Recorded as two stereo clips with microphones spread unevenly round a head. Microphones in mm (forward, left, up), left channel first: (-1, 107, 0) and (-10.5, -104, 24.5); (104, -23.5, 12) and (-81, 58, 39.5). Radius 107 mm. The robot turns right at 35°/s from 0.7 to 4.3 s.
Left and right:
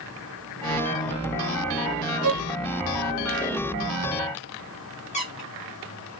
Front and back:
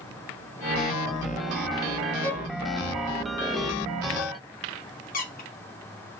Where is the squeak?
25° left, 3.5 m.